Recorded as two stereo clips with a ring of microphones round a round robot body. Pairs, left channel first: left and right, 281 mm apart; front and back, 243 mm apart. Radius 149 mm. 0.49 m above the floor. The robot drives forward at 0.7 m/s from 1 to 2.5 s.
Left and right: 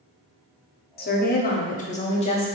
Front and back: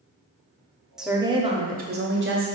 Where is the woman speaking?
95° left, 0.9 m; by 2.5 s 155° left, 1.4 m.